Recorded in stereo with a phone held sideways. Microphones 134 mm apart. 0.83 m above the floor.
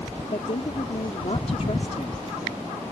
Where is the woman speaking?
55° left (ahead or behind).